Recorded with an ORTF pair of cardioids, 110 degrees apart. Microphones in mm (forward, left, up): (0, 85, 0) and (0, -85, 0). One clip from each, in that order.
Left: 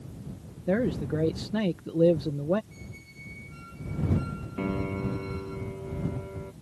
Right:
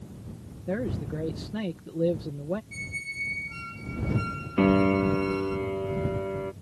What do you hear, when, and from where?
0.7 s a man speaking: 30° left
2.7 s a squeak: 55° right
4.6 s a piano: 45° right